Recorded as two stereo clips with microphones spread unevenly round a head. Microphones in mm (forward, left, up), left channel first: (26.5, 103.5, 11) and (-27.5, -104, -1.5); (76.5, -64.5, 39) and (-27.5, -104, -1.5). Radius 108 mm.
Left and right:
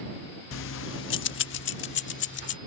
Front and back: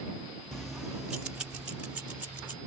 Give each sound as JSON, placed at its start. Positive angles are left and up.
{"t": 0.5, "sound": "keys jangling", "azimuth_deg": 100}